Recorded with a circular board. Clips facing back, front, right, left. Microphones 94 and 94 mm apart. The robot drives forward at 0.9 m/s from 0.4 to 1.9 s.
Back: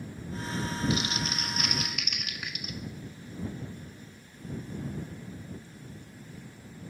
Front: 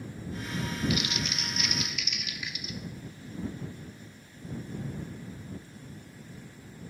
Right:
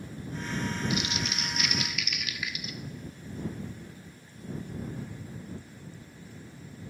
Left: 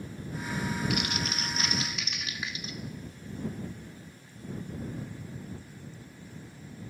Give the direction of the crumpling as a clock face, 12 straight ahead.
8 o'clock.